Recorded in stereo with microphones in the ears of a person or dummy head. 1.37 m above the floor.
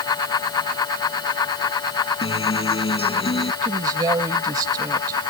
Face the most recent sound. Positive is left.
turn(degrees=-20)  # may be behind; listen again after turning